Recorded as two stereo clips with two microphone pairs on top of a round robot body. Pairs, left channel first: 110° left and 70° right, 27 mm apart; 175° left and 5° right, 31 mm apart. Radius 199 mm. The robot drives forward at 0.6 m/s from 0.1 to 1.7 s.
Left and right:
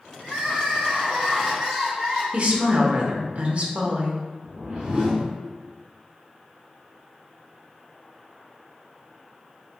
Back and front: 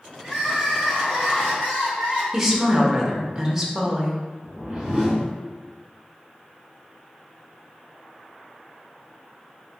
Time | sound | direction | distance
0.2 | crying | 75° right | 1.0 m
2.3 | a woman speaking | 75° right | 1.0 m
4.4 | a whoosh | 45° right | 1.4 m